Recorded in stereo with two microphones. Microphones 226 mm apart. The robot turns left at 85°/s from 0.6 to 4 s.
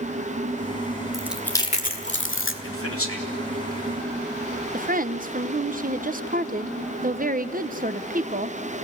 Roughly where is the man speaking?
Left.